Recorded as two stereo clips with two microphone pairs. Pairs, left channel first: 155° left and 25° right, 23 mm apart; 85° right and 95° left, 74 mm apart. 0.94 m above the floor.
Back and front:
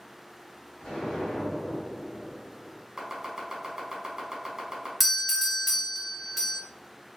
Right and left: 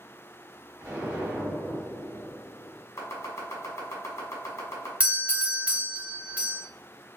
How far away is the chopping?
About 0.8 m.